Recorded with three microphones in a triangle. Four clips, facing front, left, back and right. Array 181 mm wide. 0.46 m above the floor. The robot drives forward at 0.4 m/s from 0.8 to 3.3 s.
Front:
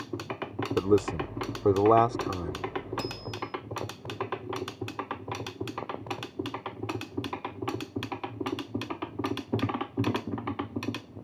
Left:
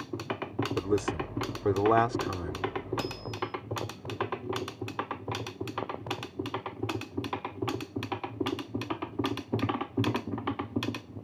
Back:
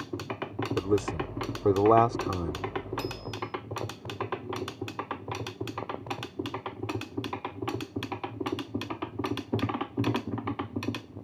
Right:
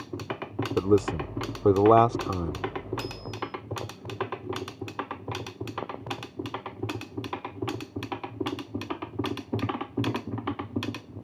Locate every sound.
0.8 s a man speaking: 55° right; by 2.6 s 115° right
3.0 s a bicycle bell: 55° left